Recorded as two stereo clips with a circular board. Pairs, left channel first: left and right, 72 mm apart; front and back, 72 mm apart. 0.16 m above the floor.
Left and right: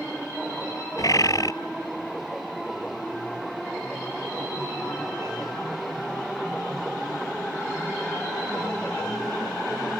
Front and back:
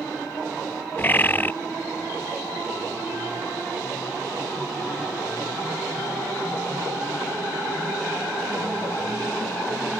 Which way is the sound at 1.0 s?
60° left.